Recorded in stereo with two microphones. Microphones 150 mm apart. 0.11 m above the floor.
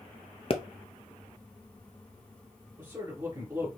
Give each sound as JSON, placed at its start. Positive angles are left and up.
{"t": 0.5, "sound": "a pop", "side_deg": 40, "distance_m": 0.7}
{"t": 2.8, "sound": "a man speaking", "side_deg": -25, "distance_m": 1.5}